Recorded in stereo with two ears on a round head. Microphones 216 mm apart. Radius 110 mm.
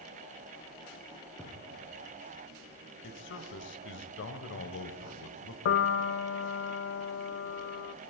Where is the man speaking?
50° left (ahead or behind), 2 m.